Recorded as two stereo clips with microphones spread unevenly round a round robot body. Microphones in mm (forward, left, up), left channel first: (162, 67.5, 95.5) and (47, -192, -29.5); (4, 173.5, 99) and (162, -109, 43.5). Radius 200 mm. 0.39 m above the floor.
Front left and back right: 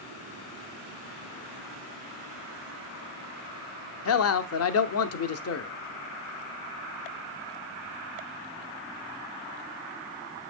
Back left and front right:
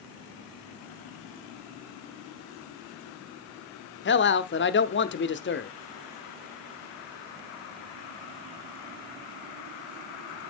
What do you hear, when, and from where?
4.0 s a man speaking: 95° left, 0.8 m